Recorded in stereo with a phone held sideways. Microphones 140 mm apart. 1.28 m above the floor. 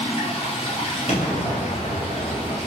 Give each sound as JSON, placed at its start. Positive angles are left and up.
{"t": 0.0, "sound": "running water", "side_deg": 50, "distance_m": 2.0}
{"t": 1.1, "sound": "an explosion", "side_deg": 60, "distance_m": 2.5}